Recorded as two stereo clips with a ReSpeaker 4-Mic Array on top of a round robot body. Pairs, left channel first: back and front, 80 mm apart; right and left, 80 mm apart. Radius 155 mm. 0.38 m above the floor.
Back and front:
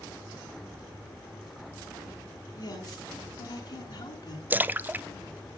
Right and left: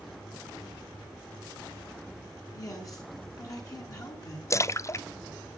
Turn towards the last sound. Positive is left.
turn(degrees=-55)